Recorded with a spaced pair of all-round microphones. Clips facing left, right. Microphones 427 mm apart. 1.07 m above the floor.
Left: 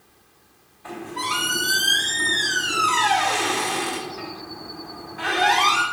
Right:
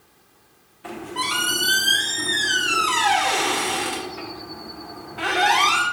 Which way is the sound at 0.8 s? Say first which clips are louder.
Right 1 dB; 85° right.